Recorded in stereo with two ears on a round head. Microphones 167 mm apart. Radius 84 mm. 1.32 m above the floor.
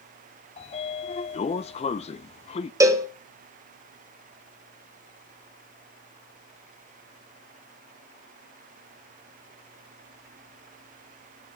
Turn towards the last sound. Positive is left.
turn(degrees=-15)  # may be behind; listen again after turning